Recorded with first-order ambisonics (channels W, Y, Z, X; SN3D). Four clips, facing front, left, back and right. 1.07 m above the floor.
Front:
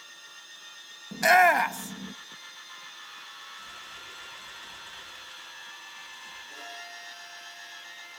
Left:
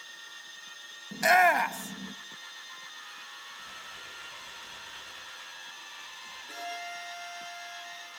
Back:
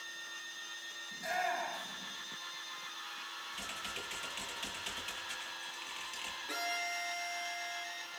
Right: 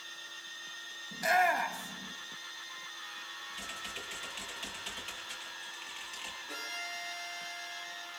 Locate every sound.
1.1 s a shout: 25° left, 1.2 m
3.5 s typing on a keyboard: 140° right, 7.5 m
6.5 s a violin: straight behind, 8 m